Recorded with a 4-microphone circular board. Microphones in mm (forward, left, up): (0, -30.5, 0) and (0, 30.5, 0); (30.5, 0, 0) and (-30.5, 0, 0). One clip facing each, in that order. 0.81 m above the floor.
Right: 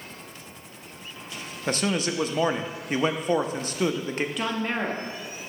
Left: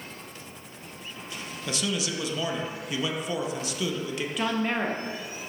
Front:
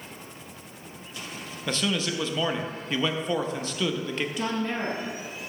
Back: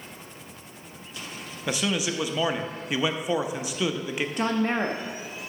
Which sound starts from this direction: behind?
A woman speaking, at 4.4 s.